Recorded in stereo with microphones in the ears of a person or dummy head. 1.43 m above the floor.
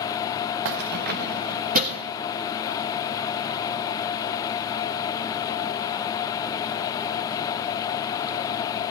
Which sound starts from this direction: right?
Keys jangling, at 0.7 s.